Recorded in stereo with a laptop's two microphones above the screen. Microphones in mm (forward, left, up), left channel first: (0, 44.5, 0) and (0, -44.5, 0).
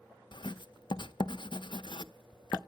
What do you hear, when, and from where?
0.3 s writing: 60° left (ahead or behind), 0.5 m